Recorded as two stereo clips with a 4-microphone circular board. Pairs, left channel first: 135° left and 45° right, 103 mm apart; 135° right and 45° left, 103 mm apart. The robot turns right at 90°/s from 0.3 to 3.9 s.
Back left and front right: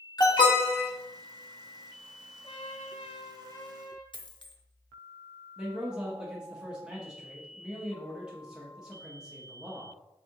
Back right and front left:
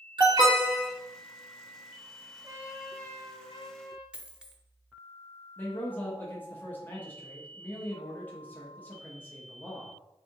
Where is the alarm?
85° left, 0.9 m; by 0.9 s 140° left, 0.9 m.